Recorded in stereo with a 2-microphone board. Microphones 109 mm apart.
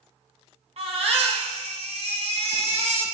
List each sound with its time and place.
0.8 s a baby crying: 65° right (ahead or behind), 2.5 m